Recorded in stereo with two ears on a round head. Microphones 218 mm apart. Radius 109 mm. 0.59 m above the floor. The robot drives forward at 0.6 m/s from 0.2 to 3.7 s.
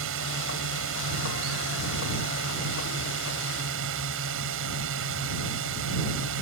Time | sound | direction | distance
0.0 | a drone | 60° right (ahead or behind) | ?